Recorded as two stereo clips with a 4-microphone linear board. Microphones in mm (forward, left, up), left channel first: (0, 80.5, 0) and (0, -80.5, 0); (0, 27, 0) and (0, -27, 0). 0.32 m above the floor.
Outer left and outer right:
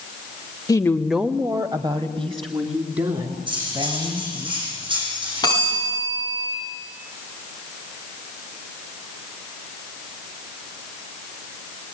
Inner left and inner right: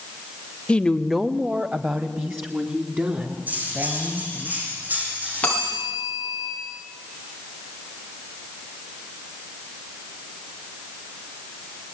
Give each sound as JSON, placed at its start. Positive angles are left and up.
{"t": 0.7, "sound": "a woman speaking", "side_deg": 20, "distance_m": 0.9}
{"t": 3.5, "sound": "cutlery clinking", "side_deg": -30, "distance_m": 9.5}
{"t": 5.4, "sound": "a bell", "side_deg": 25, "distance_m": 10.0}